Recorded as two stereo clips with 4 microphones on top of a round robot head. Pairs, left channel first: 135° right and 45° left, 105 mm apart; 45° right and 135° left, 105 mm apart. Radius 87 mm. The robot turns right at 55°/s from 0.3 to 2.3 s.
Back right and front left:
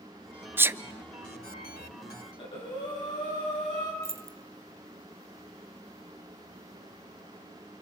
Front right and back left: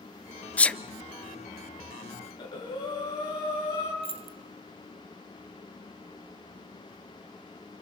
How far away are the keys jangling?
About 1.0 m.